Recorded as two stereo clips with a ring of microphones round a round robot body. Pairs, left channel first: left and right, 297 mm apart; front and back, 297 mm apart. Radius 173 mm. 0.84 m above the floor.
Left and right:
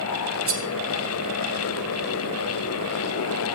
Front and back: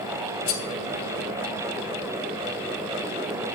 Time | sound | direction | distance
0.5 | cutlery clinking | 45° right | 2 m